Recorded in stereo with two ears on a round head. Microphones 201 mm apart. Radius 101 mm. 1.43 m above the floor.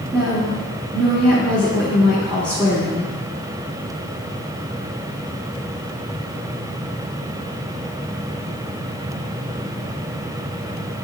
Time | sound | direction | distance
0.1 | a woman speaking | 20° right (ahead or behind) | 2 m